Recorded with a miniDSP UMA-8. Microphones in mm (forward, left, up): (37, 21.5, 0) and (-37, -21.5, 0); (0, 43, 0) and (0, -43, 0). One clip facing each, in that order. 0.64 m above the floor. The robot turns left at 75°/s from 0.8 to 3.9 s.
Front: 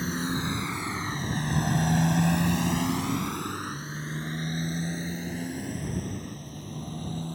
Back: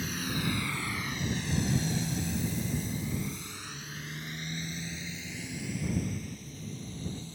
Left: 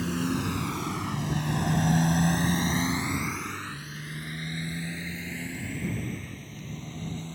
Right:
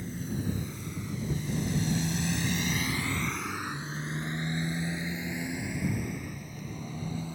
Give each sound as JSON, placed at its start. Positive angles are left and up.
{"t": 0.0, "sound": "a motorcycle", "azimuth_deg": 90}